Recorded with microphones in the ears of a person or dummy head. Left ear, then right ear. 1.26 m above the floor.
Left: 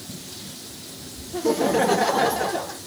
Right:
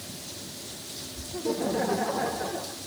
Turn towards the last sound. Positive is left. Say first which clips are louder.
# left 8 dB
turn(degrees=80)